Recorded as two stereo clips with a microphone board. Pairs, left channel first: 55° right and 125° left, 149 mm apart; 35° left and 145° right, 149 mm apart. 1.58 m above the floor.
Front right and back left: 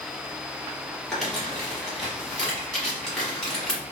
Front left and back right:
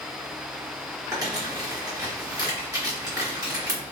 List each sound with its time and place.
1.1 s crumpling: 135° right, 1.2 m